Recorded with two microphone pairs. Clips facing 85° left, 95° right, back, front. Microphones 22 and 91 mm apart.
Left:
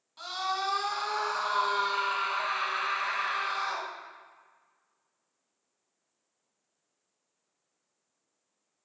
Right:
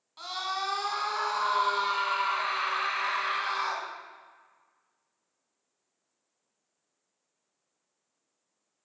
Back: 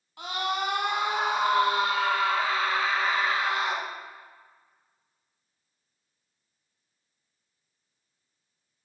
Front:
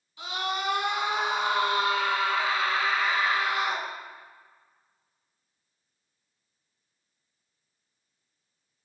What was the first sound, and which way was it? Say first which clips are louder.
A scream: left 1 dB, back 2 dB; 165° right.